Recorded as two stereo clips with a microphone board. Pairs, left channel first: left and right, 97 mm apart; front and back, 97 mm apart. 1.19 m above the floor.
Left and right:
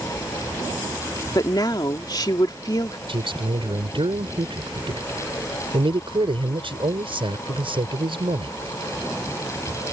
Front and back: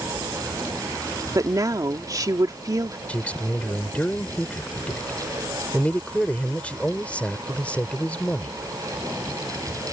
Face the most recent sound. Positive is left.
turn(degrees=-75)